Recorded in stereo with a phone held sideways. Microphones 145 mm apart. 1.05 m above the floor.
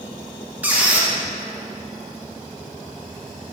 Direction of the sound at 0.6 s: 10° right (ahead or behind).